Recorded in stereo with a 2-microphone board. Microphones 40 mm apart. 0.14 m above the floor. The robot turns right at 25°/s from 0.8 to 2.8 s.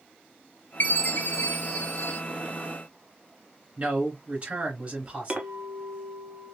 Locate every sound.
0.8 s a chime: 65° left, 1.1 m; by 2.2 s 100° left, 1.1 m
3.8 s a man speaking: 25° right (ahead or behind), 2 m
5.3 s a clink: 25° right (ahead or behind), 0.9 m